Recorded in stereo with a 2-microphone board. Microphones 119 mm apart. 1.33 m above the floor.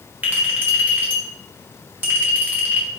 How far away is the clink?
About 1.2 m.